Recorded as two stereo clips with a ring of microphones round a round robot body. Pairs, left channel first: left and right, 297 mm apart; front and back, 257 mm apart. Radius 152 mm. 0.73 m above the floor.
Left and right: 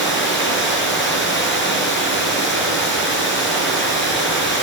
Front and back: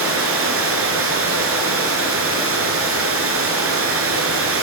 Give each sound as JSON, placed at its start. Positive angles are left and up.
{"t": 0.0, "sound": "running water", "azimuth_deg": 145, "distance_m": 5.0}